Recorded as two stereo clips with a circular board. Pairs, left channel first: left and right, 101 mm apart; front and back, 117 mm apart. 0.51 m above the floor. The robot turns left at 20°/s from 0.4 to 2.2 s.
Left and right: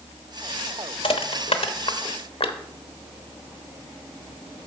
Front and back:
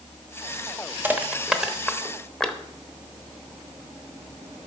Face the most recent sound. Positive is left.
turn(degrees=85)